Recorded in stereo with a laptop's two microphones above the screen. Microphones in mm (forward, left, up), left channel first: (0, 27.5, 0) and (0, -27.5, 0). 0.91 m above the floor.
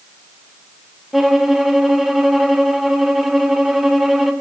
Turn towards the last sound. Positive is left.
turn(degrees=-5)  # may be behind; listen again after turning